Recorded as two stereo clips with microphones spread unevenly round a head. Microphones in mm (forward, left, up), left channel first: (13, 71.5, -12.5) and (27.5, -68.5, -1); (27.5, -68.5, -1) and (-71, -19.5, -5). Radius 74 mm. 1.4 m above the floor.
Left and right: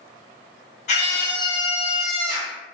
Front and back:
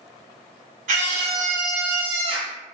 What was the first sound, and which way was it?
A scream, 140° left.